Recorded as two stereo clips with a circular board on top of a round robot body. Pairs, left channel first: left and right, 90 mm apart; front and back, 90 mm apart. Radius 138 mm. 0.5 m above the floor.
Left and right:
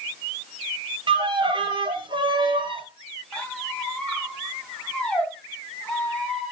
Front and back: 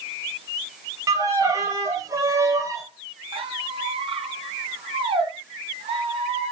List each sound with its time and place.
1.1 s a violin: 125° right, 2.5 m
3.3 s a squeak: 170° left, 3.5 m